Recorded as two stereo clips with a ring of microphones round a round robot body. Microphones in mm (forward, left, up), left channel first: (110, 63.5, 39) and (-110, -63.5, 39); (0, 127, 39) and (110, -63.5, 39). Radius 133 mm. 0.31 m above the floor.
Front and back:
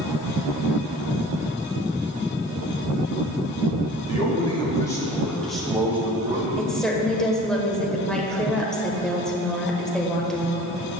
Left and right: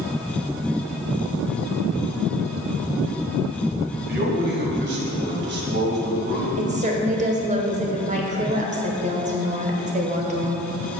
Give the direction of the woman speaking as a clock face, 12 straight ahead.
2 o'clock.